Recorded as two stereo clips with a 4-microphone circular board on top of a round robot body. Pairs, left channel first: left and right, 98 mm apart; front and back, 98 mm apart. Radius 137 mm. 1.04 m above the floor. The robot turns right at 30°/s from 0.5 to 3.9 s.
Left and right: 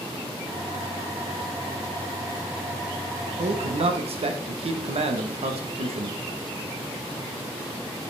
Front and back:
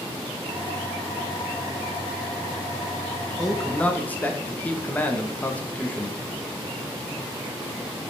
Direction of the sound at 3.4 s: 90° right.